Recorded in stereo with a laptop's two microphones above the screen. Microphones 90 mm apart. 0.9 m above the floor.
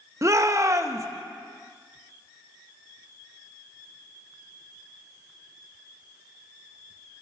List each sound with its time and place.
0.2 s a shout: 35° right (ahead or behind), 1.0 m